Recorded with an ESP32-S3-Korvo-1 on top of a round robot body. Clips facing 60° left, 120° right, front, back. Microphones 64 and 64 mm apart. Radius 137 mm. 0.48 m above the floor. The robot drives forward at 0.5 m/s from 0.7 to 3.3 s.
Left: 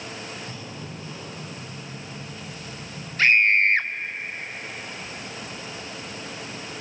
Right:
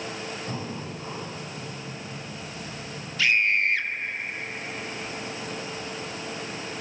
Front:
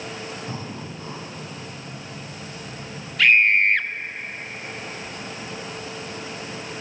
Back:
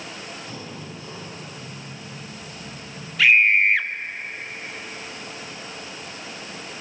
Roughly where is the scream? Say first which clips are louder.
Left 4 dB, even; left.